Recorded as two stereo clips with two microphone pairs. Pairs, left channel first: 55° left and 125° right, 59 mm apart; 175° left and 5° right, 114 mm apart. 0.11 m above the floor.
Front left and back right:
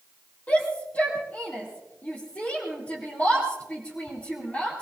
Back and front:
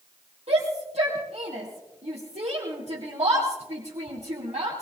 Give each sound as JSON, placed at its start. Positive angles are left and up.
{"t": 0.5, "sound": "a shout", "azimuth_deg": -5, "distance_m": 3.5}